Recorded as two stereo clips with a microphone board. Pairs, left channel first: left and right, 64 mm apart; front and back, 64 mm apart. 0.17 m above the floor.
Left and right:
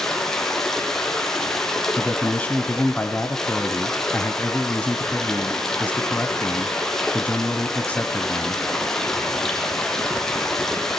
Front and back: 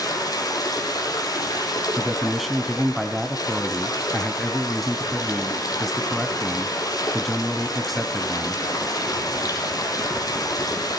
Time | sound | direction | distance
0.0 | running water | 10° left | 4.5 m
2.0 | a man speaking | 90° left | 1.1 m